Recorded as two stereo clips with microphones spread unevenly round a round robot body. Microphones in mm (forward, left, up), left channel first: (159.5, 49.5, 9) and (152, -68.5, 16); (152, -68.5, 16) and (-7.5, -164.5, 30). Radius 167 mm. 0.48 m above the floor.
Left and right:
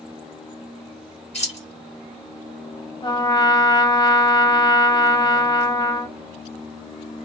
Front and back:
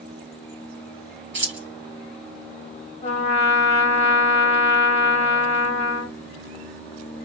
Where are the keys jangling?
170° left, 1.6 m.